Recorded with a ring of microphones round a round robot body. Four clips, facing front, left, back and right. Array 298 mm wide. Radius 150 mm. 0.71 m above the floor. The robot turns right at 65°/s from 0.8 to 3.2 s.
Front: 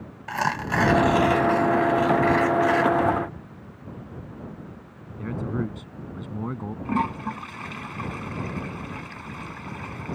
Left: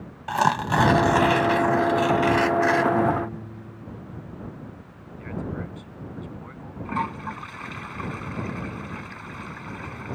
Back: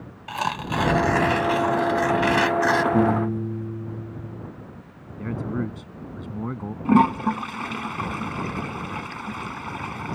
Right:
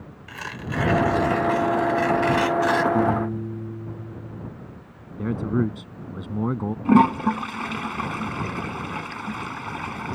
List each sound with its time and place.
0.3 s tearing paper: 80° left; by 2.8 s 145° right
2.9 s a piano: 165° right; by 4.5 s 150° right
5.2 s a man speaking: 90° right
6.8 s a toilet flushing: 120° right